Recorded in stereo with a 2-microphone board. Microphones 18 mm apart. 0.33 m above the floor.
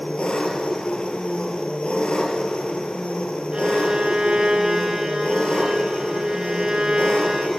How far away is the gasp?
I don't hear a gasp.